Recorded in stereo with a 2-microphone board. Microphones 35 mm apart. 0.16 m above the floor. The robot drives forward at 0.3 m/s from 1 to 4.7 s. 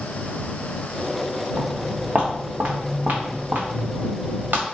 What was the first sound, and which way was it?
Footsteps, 30° right (ahead or behind).